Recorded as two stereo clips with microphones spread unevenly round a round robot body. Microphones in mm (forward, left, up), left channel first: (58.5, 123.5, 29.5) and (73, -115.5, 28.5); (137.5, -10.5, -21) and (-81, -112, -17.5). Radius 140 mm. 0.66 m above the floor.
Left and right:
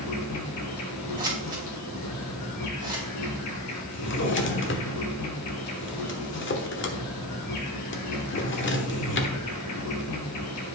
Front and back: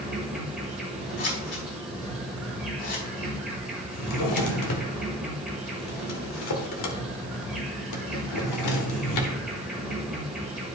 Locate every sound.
0.0 s an insect: 120° left, 1.6 m
1.2 s scissors: 15° right, 3.5 m
3.9 s a drawer: 50° left, 1.3 m